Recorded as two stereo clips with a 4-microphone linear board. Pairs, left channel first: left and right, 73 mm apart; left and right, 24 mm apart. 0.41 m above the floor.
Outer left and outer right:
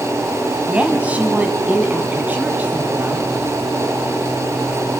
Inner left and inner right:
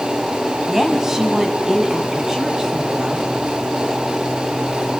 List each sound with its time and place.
0.7 s a woman speaking: 20° right (ahead or behind), 3 m; by 3.3 s 25° right (ahead or behind), 5 m